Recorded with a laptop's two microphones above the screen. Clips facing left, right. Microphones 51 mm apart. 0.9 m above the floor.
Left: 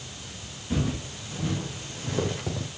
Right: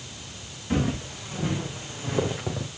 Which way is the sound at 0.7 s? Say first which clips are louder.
Right 3 dB; 30° right (ahead or behind).